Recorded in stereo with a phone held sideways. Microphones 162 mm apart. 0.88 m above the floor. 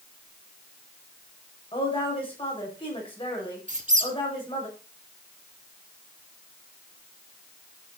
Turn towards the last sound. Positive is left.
turn(degrees=-50)  # may be behind; listen again after turning